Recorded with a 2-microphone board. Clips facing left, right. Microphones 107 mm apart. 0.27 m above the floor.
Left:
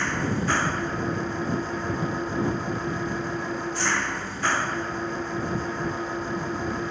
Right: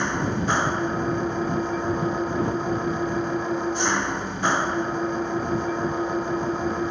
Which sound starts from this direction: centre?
An engine running, at 0.0 s.